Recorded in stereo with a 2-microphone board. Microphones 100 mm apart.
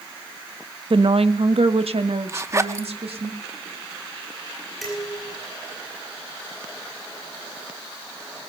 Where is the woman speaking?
60° right (ahead or behind), 0.7 m; by 3.3 s 85° right, 2 m.